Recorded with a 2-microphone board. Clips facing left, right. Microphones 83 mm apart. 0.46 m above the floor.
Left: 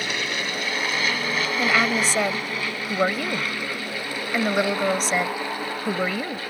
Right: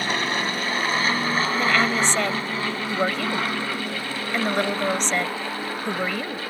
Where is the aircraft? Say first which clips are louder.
Right 4 dB; 40° right (ahead or behind); by 6.5 s 25° right (ahead or behind).